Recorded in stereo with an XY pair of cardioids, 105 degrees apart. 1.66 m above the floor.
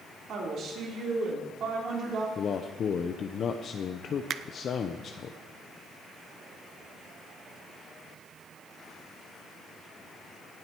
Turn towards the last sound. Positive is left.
turn(degrees=-60)